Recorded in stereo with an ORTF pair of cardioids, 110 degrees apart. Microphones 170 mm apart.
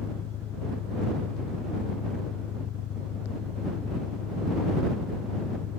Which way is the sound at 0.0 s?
70° left.